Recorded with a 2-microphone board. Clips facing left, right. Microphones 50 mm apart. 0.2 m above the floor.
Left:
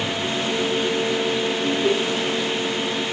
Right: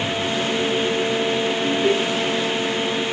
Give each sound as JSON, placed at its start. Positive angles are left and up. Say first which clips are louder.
{"t": 1.6, "sound": "laughter", "louder": "right 1 dB", "side_deg": -25, "distance_m": 6.0}